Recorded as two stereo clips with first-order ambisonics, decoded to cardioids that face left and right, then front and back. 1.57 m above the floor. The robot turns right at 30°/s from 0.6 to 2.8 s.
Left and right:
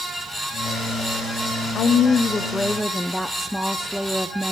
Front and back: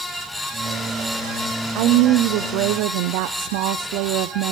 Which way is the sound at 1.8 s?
150° left.